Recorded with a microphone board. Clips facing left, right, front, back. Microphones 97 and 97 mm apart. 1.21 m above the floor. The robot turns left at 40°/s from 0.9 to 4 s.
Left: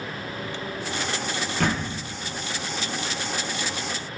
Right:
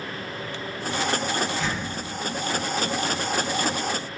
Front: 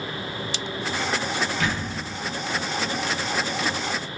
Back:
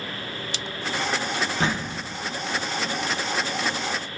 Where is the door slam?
120° left, 0.6 m; by 2.0 s 105° left, 0.6 m.